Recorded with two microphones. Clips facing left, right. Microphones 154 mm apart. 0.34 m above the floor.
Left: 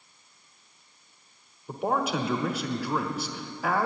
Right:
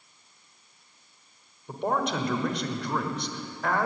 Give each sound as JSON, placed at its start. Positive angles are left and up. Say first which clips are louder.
{"t": 1.7, "sound": "a man speaking", "louder": "even", "side_deg": 5, "distance_m": 1.0}